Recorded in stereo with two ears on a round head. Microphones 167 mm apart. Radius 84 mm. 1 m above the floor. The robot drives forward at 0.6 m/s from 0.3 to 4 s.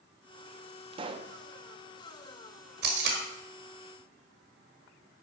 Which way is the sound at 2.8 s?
60° right (ahead or behind).